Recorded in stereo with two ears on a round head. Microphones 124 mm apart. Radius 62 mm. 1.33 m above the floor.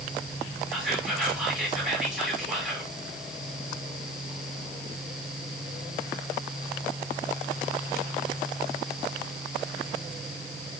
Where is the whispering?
5° right (ahead or behind), 1.9 m.